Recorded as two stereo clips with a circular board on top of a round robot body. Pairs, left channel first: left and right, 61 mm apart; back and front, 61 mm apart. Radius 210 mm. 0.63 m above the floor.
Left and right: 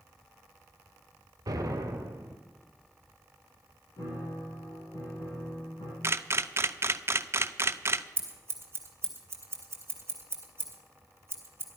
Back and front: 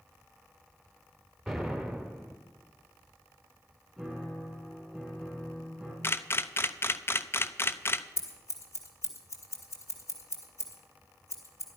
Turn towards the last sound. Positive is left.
turn(degrees=-140)